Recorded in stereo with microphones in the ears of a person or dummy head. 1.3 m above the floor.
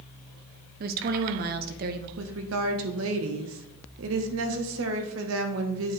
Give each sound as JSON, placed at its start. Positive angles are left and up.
{"t": 0.8, "sound": "a woman speaking", "side_deg": -50, "distance_m": 0.7}
{"t": 2.2, "sound": "a woman speaking", "side_deg": -75, "distance_m": 1.0}